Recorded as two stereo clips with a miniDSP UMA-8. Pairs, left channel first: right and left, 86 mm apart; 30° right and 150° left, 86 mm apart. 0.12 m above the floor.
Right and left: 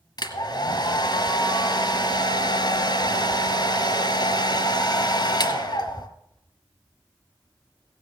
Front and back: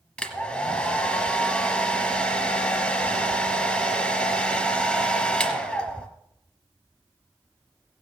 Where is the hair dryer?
105° right, 1.4 m.